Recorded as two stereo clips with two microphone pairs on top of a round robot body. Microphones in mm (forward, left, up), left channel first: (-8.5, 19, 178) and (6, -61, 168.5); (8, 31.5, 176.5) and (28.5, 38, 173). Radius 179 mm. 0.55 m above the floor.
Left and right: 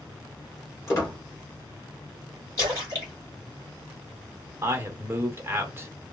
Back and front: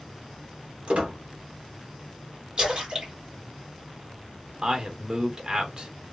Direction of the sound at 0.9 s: 45° left.